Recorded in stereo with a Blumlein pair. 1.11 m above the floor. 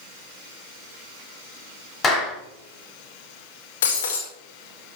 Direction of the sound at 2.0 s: 20° left.